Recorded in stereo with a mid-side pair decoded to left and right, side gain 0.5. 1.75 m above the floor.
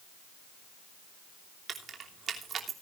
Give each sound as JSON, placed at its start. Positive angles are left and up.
{"t": 1.7, "sound": "keys jangling", "azimuth_deg": -45, "distance_m": 3.0}